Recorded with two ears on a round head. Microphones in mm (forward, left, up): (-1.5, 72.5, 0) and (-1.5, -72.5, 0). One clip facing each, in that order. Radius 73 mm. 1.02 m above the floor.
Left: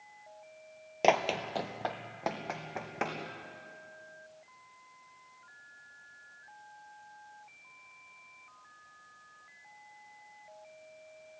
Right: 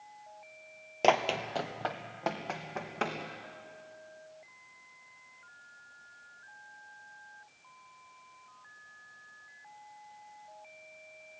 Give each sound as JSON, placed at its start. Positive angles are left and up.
{"t": 1.0, "sound": "running footsteps", "side_deg": 5, "distance_m": 1.3}